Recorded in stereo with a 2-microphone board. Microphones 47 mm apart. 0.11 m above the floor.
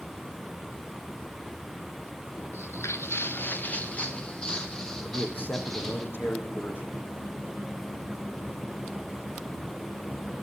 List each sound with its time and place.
2.5 s footsteps: 90° left, 1.7 m; by 6.0 s 5° left (ahead or behind), 5 m
5.0 s a man speaking: 45° left (ahead or behind), 4 m